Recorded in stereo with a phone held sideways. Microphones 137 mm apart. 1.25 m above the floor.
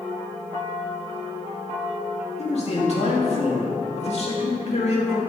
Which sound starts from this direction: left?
A man speaking, at 2.4 s.